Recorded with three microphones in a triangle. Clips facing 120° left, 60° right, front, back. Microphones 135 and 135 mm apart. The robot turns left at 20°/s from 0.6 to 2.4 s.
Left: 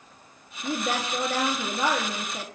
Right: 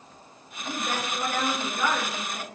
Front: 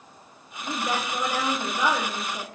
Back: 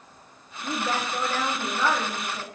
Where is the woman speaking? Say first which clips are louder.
Left 3 dB, even; 100° left, 1.5 m; by 2.5 s 65° left, 1.5 m.